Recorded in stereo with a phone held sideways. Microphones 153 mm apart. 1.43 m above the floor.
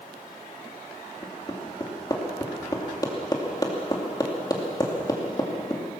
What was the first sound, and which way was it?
Hammering, 25° left (ahead or behind).